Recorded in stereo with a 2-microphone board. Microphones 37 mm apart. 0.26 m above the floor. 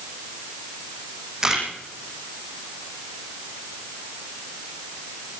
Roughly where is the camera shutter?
Centre.